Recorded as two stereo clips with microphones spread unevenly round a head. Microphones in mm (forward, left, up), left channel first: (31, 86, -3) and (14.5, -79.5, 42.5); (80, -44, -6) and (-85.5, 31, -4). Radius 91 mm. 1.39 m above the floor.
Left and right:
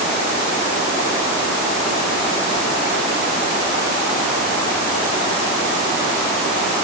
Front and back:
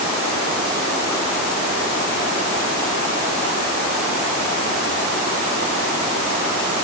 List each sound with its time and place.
Only background noise.